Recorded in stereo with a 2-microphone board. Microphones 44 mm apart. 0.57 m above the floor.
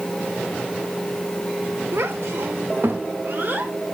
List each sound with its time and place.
1.9 s a child speaking: 70° right (ahead or behind), 1.3 m; by 3.7 s 50° right (ahead or behind), 1.8 m